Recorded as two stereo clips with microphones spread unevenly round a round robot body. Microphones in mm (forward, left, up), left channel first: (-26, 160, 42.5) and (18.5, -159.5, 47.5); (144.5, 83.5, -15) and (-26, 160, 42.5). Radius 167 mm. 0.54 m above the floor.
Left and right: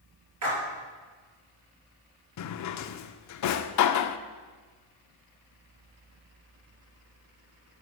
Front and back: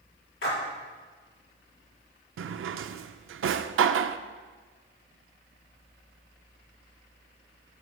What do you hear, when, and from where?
0.4 s a splash: 40° right, 4 m
2.4 s a drawer: 135° left, 0.5 m